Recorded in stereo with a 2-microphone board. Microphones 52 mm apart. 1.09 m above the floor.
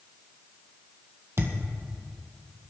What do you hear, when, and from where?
1.4 s a thud: 55° right (ahead or behind), 1.9 m